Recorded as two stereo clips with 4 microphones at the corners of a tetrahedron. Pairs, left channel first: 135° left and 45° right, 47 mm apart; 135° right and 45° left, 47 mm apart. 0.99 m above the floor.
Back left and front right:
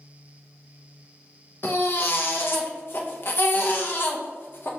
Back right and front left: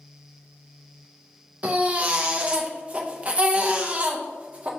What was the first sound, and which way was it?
A baby crying, 105° left.